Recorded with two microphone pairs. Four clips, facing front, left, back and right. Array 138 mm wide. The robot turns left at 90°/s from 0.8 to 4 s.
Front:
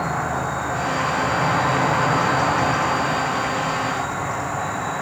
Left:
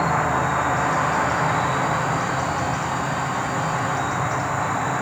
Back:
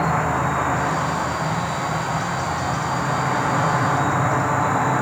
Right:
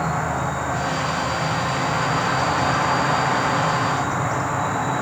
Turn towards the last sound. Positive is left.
turn(degrees=-175)